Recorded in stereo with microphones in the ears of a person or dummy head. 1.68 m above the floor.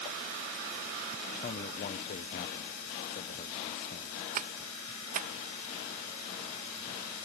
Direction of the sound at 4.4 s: 40° right (ahead or behind).